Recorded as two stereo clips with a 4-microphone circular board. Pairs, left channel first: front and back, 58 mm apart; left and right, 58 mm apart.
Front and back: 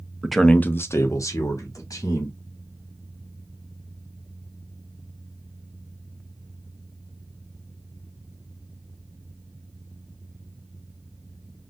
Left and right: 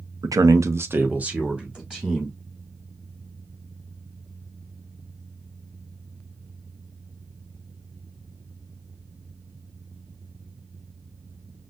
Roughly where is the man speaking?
Right.